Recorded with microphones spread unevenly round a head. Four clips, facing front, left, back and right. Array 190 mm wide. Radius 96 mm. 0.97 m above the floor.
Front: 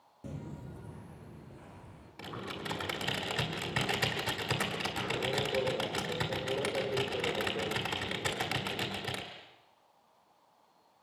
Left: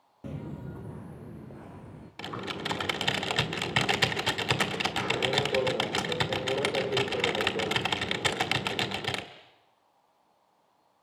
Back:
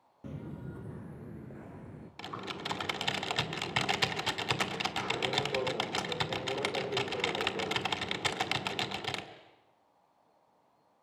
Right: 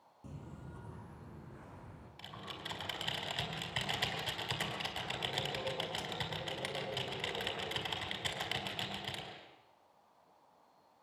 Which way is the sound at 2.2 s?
95° left.